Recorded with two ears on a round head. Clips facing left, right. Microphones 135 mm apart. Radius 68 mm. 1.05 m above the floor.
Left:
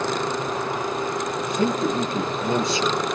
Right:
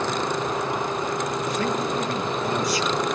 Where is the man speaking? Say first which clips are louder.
Left 6 dB; 25° left (ahead or behind), 2.5 m.